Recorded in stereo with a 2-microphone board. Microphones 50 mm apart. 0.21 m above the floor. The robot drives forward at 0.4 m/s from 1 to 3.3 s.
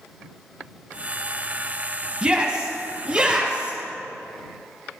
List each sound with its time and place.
2.2 s a shout: 20° right (ahead or behind), 1.2 m; by 3.8 s 15° right (ahead or behind), 1.3 m